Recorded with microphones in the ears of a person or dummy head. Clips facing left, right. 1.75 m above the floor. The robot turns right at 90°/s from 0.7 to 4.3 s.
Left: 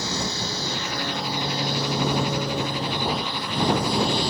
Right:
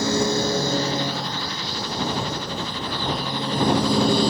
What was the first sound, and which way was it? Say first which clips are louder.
A lawn mower: right 9 dB; 50° right (ahead or behind).